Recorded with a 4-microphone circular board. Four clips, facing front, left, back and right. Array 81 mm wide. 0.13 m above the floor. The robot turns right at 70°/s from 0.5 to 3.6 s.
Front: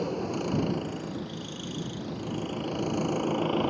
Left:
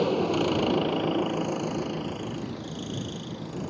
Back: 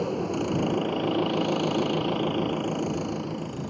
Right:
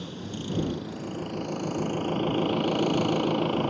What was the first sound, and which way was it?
An engine running, 95° left.